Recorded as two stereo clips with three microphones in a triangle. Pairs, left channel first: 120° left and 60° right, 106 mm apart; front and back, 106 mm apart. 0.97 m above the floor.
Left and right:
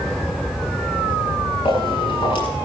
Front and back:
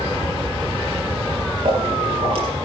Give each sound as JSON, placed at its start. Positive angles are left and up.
{"t": 1.6, "sound": "footsteps", "azimuth_deg": 160, "distance_m": 9.5}